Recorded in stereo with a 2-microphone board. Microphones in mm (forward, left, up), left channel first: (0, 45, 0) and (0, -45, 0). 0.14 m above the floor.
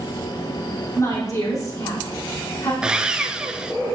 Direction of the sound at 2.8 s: 10° right (ahead or behind).